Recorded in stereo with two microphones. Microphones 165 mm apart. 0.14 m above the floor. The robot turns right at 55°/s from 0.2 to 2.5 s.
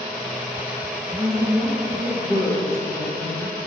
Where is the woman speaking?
55° right, 2.5 m; by 3.6 s 15° left, 2.5 m.